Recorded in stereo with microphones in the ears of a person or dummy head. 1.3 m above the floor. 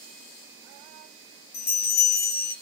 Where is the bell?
60° left (ahead or behind), 1.6 m.